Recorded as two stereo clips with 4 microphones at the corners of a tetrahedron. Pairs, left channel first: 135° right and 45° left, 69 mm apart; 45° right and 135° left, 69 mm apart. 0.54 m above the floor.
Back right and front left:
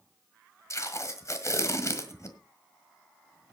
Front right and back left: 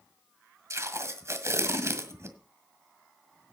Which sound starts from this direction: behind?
Tape being pulled, at 0.7 s.